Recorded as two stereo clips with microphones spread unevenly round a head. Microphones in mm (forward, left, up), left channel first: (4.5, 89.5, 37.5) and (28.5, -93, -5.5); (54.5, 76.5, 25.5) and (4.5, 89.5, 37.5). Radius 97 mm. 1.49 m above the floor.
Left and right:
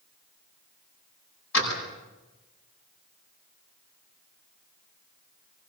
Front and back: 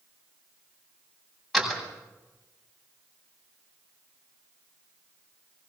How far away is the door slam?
About 8 m.